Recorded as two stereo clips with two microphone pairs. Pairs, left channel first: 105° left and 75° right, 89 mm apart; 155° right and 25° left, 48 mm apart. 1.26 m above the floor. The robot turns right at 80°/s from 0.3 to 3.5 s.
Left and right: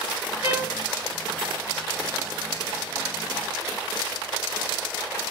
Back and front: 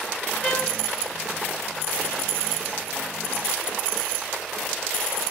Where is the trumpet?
125° left, 1.1 m; by 0.8 s 155° left, 1.1 m.